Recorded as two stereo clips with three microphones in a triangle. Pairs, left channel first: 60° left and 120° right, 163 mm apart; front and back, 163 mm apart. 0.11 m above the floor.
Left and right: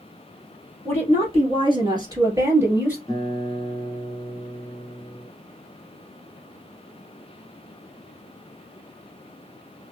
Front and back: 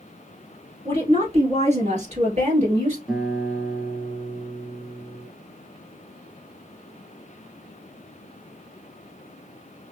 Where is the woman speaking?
145° right, 1.8 m; by 3.0 s 165° left, 1.9 m.